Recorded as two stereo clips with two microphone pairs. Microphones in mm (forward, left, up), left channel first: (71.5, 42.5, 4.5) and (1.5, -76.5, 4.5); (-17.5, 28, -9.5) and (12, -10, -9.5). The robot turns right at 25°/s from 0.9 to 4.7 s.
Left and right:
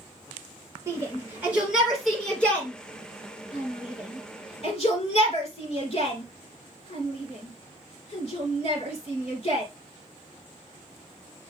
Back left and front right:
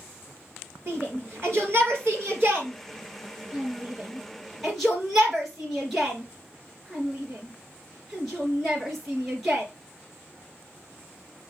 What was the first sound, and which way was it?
A shout, 60° right.